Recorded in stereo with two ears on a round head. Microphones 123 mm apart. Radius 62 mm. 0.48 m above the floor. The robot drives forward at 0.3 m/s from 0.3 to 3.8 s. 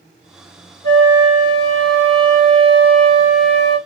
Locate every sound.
0.8 s a flute: 5° left (ahead or behind), 1.3 m